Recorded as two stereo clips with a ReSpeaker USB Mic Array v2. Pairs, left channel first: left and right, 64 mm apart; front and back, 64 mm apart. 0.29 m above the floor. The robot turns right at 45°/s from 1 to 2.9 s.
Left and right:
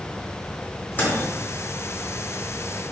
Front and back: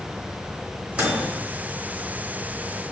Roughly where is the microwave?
Behind left.